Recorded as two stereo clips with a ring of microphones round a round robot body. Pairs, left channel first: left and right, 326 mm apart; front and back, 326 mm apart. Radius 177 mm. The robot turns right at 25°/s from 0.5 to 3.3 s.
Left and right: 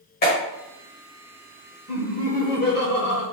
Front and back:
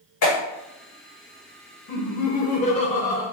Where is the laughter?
35° left, 0.9 m; by 3.2 s 70° left, 0.9 m.